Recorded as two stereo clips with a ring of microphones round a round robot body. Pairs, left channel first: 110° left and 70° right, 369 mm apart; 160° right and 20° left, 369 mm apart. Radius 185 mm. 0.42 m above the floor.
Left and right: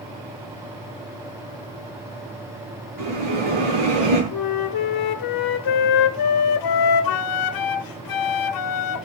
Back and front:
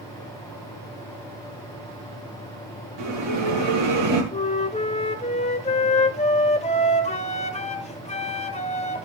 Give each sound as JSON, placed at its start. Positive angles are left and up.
{"t": 3.0, "sound": "a bell", "azimuth_deg": -25, "distance_m": 9.0}
{"t": 4.3, "sound": "a flute", "azimuth_deg": 130, "distance_m": 1.2}